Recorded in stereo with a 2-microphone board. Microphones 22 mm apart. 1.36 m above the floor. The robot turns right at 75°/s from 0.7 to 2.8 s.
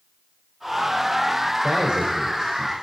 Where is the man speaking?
70° right, 6 m; by 2.7 s 10° left, 6 m.